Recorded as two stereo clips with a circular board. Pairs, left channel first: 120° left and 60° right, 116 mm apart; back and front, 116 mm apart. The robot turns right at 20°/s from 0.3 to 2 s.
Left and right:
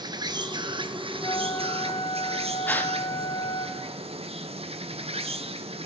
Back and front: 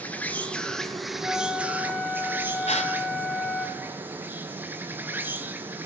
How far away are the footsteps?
I don't hear footsteps.